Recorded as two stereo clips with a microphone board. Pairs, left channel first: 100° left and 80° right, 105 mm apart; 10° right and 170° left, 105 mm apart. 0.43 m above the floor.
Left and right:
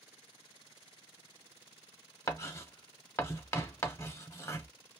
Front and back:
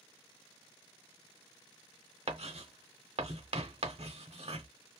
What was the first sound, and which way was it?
Writing, 160° left.